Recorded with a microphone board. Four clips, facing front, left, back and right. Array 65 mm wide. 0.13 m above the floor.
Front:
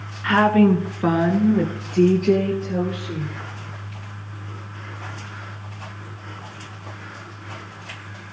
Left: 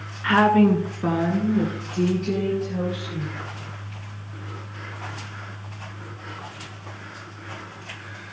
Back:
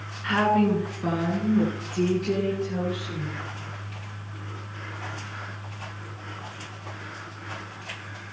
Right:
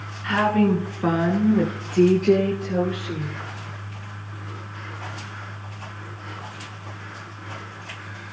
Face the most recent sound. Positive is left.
turn(degrees=-60)